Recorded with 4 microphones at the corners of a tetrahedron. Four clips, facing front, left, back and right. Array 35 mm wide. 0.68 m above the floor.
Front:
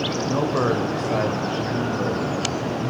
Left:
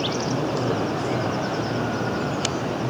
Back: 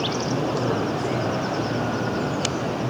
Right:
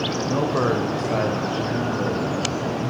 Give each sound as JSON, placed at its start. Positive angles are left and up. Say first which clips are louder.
{"t": 0.3, "sound": "a man speaking", "louder": "right 3 dB, front 2 dB", "azimuth_deg": -45, "distance_m": 3.5}